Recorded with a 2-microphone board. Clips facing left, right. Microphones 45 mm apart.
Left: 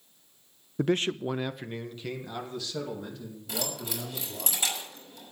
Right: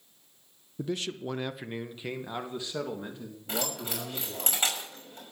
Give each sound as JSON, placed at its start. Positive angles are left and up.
{"t": 0.8, "sound": "a man speaking", "side_deg": 65, "distance_m": 0.7}
{"t": 3.5, "sound": "keys jangling", "side_deg": -35, "distance_m": 6.0}